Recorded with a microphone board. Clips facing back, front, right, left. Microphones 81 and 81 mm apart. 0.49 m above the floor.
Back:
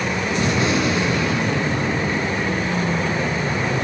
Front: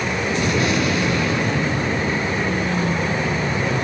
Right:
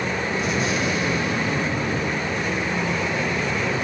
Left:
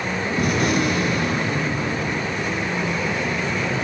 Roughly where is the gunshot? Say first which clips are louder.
Back 1 dB, left 6 dB; behind left.